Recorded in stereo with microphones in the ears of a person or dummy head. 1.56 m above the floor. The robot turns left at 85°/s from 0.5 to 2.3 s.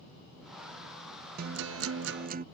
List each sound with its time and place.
1.4 s a guitar: 55° right; by 2.5 s 135° right